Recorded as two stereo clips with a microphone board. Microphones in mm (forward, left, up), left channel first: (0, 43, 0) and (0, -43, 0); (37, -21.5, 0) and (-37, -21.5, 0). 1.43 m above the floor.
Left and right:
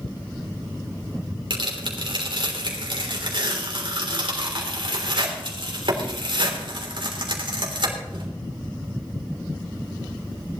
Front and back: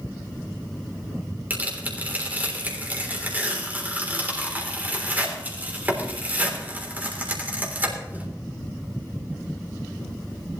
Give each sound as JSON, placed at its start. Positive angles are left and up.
{"t": 1.5, "sound": "tearing paper", "azimuth_deg": -115, "distance_m": 3.5}